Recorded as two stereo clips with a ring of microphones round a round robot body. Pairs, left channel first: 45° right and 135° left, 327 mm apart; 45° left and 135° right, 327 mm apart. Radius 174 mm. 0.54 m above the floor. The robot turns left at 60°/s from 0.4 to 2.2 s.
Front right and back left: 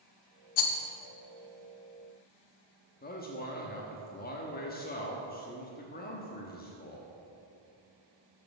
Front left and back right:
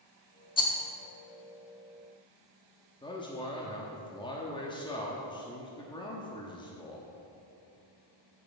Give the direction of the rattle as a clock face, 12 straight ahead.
1 o'clock.